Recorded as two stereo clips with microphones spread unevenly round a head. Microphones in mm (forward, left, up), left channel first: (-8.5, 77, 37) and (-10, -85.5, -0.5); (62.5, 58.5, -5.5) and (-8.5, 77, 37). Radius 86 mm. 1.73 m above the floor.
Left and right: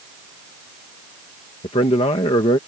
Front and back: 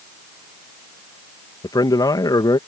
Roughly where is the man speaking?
Ahead left.